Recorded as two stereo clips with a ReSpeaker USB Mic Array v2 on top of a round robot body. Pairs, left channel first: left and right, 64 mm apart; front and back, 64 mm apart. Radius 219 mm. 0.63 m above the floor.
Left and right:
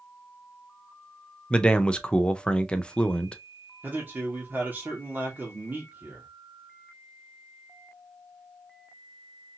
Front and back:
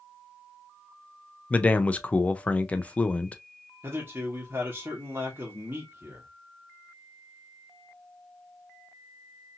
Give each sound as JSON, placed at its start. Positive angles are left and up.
{"t": 1.5, "sound": "a man speaking", "azimuth_deg": 35, "distance_m": 0.7}
{"t": 3.8, "sound": "a man speaking", "azimuth_deg": -135, "distance_m": 1.4}